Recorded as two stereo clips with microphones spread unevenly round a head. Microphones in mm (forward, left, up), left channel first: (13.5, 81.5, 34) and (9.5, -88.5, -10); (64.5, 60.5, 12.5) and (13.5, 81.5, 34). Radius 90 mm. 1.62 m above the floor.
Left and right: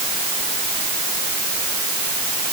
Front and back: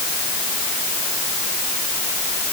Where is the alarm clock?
I don't hear an alarm clock.